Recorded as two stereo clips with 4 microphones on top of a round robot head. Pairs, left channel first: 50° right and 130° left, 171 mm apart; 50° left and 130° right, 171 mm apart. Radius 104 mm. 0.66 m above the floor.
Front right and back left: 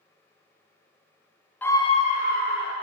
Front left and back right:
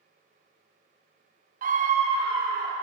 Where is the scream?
125° right, 0.6 m; by 2.8 s 65° right, 1.4 m.